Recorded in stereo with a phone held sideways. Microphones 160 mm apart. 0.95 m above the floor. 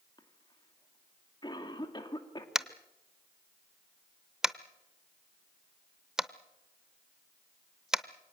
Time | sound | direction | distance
0.2 | a cough | 25° left (ahead or behind) | 2.5 m
2.5 | tapping | 5° right (ahead or behind) | 0.7 m